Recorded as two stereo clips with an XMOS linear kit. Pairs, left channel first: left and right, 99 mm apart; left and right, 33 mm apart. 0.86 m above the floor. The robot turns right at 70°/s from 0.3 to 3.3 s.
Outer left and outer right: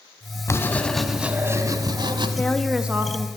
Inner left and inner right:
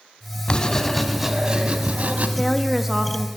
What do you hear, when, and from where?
0.5 s writing: 140° left, 1.1 m; by 2.3 s 90° right, 1.1 m
2.4 s a woman speaking: 160° left, 0.9 m; by 3.3 s 135° right, 0.9 m